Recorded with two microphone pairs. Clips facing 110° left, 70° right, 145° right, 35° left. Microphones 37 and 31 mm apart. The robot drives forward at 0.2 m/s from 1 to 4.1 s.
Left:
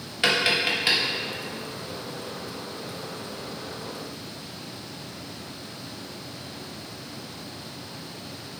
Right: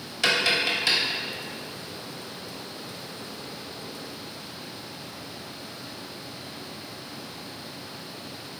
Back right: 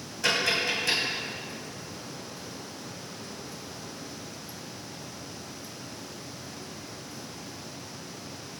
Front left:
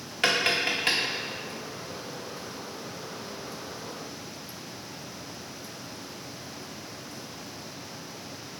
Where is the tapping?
40° left, 1.4 m.